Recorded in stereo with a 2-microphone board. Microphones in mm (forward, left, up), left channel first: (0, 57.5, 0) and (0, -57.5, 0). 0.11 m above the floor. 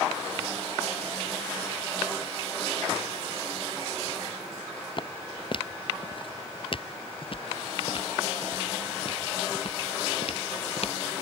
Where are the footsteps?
45° left (ahead or behind); by 11.0 s 60° left (ahead or behind).